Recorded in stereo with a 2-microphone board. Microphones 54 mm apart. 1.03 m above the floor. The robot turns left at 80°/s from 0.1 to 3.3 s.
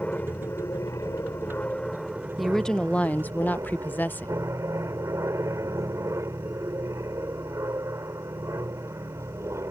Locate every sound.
0.0 s an aircraft: 155° left; by 9.7 s 105° right
2.4 s a woman speaking: 175° right; by 4.4 s 110° left